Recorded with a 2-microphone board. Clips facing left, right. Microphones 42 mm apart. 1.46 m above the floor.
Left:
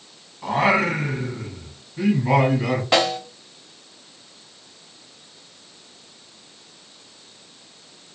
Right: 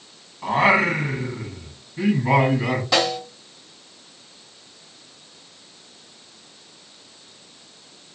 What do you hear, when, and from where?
0.4 s singing: 15° right (ahead or behind), 0.9 m
2.9 s a snare drum: 45° left (ahead or behind), 1.1 m